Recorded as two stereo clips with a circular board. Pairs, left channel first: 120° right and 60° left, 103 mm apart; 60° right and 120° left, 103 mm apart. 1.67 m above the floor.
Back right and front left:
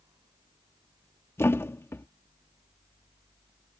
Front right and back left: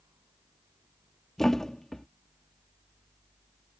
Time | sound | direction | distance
1.4 | a thud | 145° right | ?